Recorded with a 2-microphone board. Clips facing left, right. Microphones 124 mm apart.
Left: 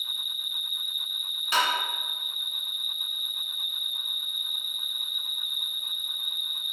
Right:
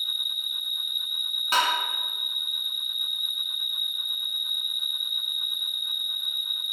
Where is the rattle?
I don't hear a rattle.